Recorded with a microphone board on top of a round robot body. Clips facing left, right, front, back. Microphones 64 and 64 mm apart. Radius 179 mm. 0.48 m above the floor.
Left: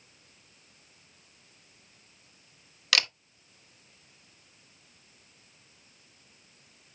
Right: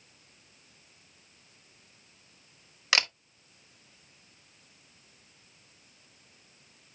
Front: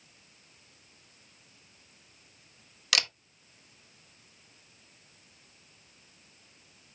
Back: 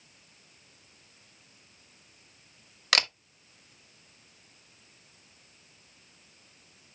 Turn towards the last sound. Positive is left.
turn(degrees=-150)